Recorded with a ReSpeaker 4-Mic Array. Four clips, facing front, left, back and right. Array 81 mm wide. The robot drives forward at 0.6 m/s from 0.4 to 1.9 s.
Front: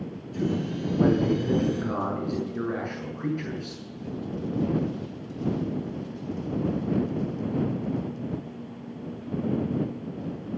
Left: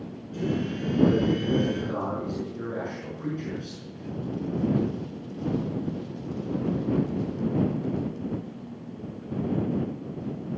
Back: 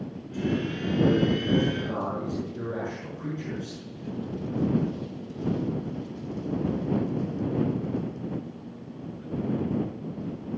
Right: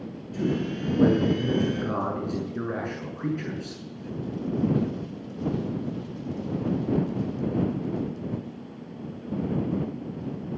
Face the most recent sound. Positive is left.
turn(degrees=-60)